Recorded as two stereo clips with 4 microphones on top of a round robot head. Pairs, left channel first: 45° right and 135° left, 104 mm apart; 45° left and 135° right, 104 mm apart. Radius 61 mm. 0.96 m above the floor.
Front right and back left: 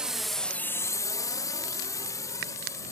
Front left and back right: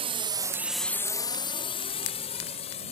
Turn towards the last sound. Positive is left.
turn(degrees=15)